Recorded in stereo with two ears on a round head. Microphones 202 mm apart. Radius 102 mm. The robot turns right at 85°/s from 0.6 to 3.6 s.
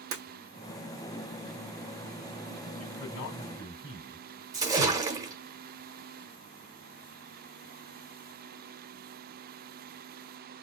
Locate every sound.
0.1 s breaking glass: 70° right (ahead or behind), 1.8 m
2.8 s a man speaking: 85° left, 2.5 m; by 4.3 s 150° left, 2.5 m
4.5 s a splash: 15° right (ahead or behind), 1.0 m